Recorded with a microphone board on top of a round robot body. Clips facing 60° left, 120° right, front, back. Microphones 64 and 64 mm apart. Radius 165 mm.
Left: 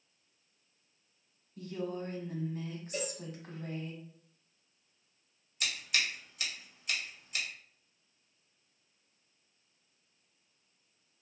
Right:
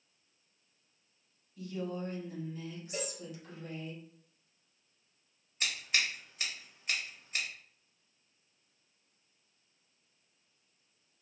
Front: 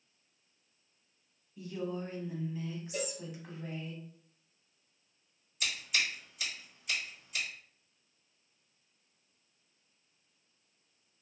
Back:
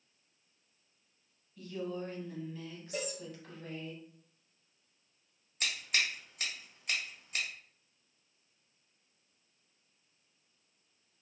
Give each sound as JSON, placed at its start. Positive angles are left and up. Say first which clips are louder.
{"t": 1.6, "sound": "a woman speaking", "louder": "even, front 1 dB", "azimuth_deg": 65, "distance_m": 1.1}
{"t": 2.9, "sound": "a cowbell", "louder": "left 1 dB, even", "azimuth_deg": 180, "distance_m": 0.8}
{"t": 5.6, "sound": "scissors", "louder": "right 1 dB, even", "azimuth_deg": -170, "distance_m": 1.7}